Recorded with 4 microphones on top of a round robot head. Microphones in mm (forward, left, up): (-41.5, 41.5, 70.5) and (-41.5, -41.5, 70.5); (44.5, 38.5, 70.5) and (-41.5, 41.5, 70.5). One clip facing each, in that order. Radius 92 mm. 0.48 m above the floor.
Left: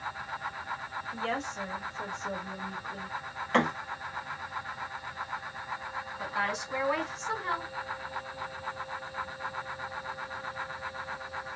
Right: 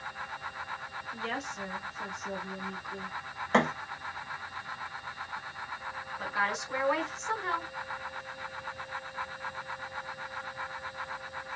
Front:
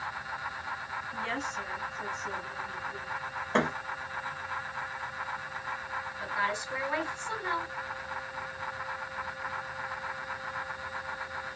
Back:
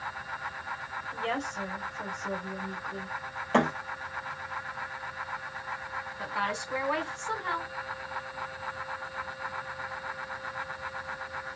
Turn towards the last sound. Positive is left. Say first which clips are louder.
# right 1 dB, even
turn(degrees=180)